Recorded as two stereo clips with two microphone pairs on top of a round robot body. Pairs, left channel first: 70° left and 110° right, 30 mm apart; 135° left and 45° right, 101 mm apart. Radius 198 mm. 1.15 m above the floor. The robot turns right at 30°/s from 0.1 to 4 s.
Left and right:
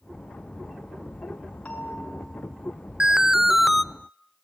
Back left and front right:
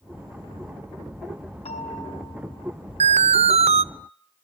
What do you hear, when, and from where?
1.6 s a bell: 115° left, 5.5 m; by 2.9 s 150° left, 5.5 m
3.0 s an alarm: 45° right, 0.6 m; by 3.8 s 20° right, 0.6 m